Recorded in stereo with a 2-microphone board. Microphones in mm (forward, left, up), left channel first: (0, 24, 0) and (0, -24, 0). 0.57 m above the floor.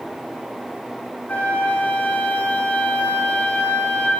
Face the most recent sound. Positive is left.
turn(degrees=40)  # may be behind; listen again after turning